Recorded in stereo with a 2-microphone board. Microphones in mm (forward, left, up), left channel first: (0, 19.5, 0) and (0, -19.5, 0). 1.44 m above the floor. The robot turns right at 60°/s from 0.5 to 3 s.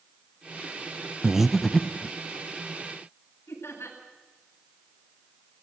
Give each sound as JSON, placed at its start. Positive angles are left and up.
{"t": 1.2, "sound": "breathing", "side_deg": -15, "distance_m": 0.9}
{"t": 3.5, "sound": "laughter", "side_deg": 85, "distance_m": 9.5}